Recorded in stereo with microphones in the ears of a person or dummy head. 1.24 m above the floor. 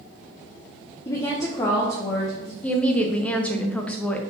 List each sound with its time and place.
1.1 s a woman speaking: 20° left (ahead or behind), 0.7 m
2.6 s a woman speaking: 10° left (ahead or behind), 0.5 m